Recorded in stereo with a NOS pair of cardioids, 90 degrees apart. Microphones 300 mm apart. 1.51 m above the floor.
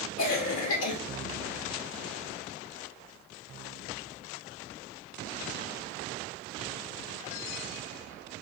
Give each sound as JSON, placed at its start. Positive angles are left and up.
{"t": 0.2, "sound": "a cough", "azimuth_deg": 55, "distance_m": 1.4}